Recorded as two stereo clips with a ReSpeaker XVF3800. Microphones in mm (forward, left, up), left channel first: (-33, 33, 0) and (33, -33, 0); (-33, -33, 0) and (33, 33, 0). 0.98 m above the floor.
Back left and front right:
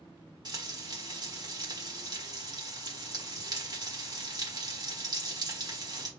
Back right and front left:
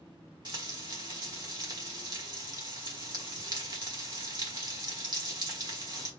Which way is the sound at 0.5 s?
Straight ahead.